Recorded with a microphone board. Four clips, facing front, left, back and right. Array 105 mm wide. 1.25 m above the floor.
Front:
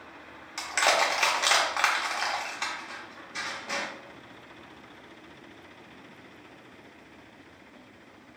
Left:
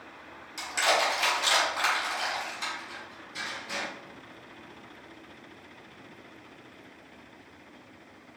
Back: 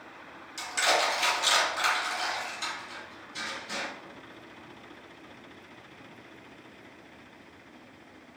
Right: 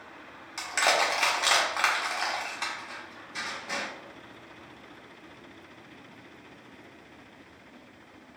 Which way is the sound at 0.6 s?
35° right.